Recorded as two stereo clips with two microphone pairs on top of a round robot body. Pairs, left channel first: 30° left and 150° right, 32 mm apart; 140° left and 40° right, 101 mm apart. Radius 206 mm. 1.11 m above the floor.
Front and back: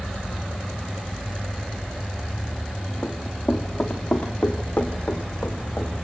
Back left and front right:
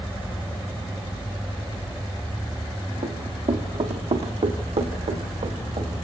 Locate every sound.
3.0 s running footsteps: 50° right, 3.5 m; by 5.9 s 20° right, 4 m